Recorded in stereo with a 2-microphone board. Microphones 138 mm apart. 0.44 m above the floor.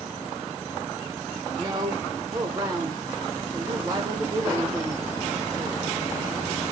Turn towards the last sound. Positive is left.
turn(degrees=-30)  # may be behind; listen again after turning